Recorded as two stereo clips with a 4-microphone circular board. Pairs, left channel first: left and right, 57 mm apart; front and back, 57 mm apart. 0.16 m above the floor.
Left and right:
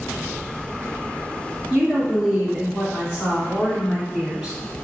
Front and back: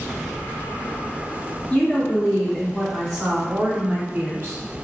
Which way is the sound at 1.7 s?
15° right.